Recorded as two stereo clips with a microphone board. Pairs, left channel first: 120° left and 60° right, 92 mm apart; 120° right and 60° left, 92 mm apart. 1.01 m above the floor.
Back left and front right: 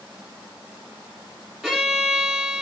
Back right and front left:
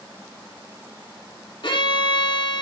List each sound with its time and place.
1.6 s a violin: 145° right, 3.5 m